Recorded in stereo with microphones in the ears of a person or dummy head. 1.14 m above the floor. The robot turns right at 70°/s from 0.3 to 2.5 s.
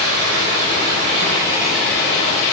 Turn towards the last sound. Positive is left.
turn(degrees=55)